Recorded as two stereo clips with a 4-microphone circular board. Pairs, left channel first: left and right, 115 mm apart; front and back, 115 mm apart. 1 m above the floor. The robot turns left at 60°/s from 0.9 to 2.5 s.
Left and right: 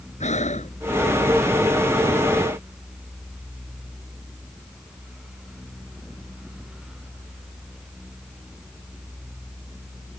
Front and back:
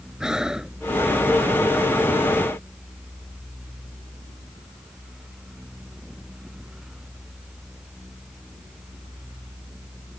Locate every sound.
0.2 s breathing: 95° left